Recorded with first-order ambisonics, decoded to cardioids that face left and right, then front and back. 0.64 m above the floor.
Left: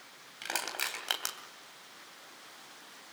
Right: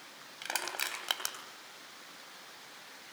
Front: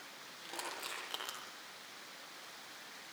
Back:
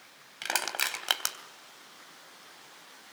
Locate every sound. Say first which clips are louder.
0.4 s crushing: left 1 dB, back 14 dB; 175° left, 3 m